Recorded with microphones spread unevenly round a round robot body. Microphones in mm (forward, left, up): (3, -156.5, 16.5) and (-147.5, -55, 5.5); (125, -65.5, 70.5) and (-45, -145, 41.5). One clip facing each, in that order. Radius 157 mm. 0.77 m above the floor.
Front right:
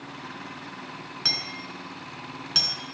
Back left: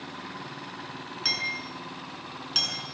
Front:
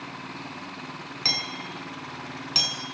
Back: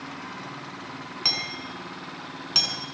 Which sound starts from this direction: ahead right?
Hammering, at 1.2 s.